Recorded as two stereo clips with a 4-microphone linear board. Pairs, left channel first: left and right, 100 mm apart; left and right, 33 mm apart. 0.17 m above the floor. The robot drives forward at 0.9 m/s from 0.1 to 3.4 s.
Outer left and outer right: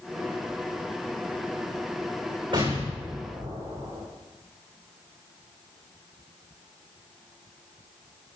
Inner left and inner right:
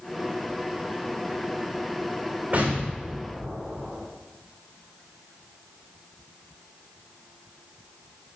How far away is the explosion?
About 9 m.